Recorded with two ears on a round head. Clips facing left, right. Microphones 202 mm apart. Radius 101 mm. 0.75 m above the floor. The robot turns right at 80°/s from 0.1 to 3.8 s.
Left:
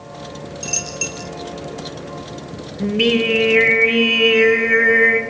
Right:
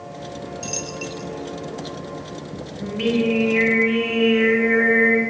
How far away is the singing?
About 4.5 m.